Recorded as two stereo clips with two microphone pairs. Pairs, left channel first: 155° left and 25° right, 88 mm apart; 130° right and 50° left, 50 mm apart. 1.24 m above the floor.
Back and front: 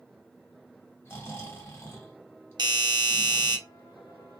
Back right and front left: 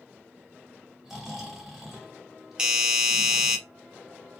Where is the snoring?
125° left, 1.2 m.